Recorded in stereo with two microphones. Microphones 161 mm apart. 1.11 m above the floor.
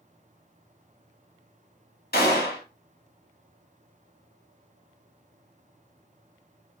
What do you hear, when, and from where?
2.1 s a gunshot: 80° left, 1.0 m